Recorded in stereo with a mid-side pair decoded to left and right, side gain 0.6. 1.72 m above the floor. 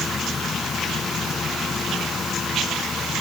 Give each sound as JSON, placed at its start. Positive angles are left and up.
{"t": 0.0, "sound": "a machine running", "azimuth_deg": 30}